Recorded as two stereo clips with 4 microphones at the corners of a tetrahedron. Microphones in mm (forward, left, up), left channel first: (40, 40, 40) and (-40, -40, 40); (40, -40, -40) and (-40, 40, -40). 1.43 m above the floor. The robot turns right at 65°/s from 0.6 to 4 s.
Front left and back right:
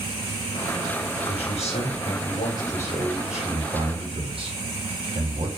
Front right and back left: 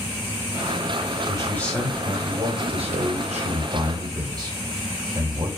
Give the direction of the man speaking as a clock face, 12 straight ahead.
12 o'clock.